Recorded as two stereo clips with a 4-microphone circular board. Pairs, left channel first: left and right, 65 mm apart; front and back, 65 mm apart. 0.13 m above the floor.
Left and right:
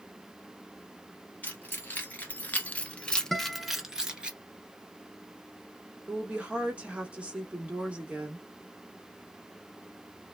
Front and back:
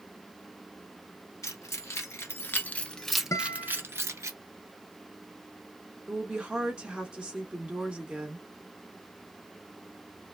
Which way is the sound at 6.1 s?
125° right.